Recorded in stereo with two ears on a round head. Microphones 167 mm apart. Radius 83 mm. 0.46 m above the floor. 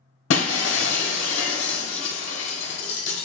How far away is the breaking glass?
About 1.0 m.